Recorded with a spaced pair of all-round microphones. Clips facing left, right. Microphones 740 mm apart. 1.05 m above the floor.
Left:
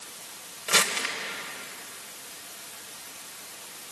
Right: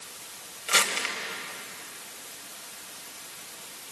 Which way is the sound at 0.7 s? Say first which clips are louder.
Left 2 dB; 65° left (ahead or behind).